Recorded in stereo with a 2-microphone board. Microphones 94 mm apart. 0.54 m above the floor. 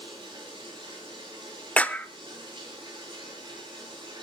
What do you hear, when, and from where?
0.0 s running water: 50° right (ahead or behind), 8.5 m
1.8 s a clap: 15° left (ahead or behind), 0.9 m